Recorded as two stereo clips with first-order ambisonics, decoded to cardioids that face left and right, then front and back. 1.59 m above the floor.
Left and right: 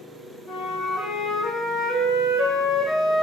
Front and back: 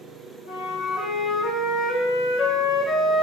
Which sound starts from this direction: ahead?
A flute, at 0.5 s.